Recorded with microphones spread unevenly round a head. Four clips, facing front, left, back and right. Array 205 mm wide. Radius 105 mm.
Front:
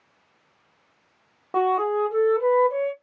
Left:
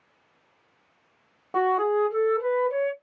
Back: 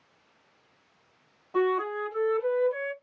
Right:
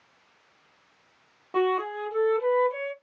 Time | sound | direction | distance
1.5 | a flute | 15° left | 1.0 m